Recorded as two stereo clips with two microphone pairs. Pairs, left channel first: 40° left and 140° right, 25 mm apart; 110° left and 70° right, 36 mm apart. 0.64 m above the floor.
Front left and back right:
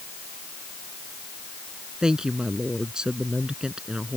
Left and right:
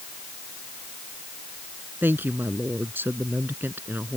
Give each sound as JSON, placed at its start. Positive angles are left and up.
{"t": 2.0, "sound": "a woman speaking", "azimuth_deg": -80}